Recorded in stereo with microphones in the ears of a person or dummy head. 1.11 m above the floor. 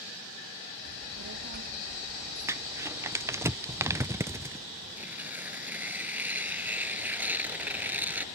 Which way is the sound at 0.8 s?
50° right (ahead or behind).